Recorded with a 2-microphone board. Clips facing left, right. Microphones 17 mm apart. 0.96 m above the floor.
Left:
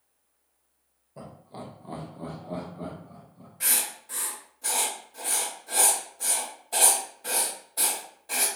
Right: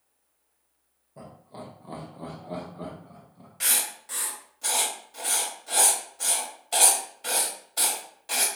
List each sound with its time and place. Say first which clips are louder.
1.2 s laughter: left 1 dB; 20° left (ahead or behind), 0.8 m; by 3.5 s 40° right (ahead or behind), 1.1 m
3.6 s writing: right 2 dB; 60° right (ahead or behind), 0.9 m